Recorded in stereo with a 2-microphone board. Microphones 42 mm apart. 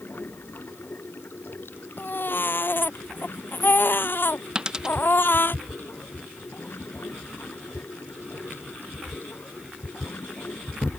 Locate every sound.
0.0 s running water: 55° left (ahead or behind)
2.0 s a baby crying: 55° left (ahead or behind)
4.5 s a dropped coin: 20° right (ahead or behind)